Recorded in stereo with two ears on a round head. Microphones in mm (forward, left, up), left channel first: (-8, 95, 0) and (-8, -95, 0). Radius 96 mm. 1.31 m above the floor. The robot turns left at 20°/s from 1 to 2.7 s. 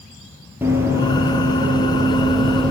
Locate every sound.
0.6 s running footsteps: 10° right (ahead or behind), 1.4 m; by 2.7 s 5° left (ahead or behind), 2 m